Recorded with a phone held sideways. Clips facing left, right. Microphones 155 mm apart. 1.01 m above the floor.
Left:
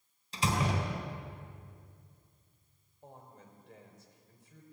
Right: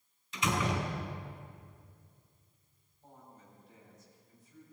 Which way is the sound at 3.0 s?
80° left.